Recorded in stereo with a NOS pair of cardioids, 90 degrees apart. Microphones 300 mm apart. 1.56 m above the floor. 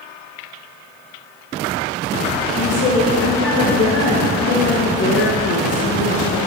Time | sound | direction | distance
2.5 | a woman speaking | 45° left | 1.5 m